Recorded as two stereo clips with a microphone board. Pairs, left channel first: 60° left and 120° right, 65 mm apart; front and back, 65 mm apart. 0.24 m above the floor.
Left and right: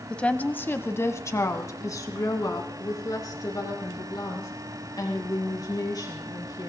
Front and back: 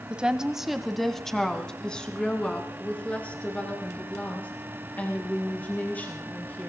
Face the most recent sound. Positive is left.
turn(degrees=60)